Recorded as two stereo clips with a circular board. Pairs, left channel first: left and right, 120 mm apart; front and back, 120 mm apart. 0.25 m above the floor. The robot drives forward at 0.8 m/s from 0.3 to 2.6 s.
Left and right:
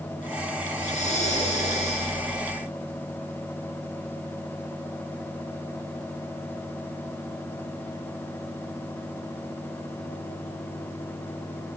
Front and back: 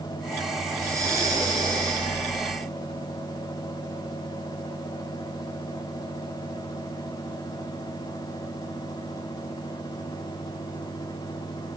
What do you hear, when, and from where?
0.7 s breathing: 115° left, 8.5 m; by 2.1 s 120° left, 9 m